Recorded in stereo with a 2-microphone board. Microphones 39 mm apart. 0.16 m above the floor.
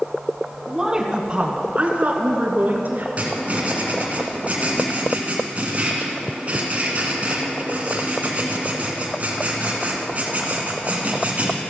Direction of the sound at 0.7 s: 10° right (ahead or behind).